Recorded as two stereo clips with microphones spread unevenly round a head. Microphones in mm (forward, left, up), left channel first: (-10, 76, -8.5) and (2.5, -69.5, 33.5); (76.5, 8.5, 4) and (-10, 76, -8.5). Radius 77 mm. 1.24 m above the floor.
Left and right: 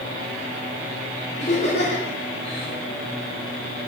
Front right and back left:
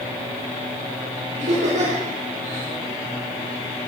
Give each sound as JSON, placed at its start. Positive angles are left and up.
{"t": 1.4, "sound": "laughter", "azimuth_deg": 140, "distance_m": 4.0}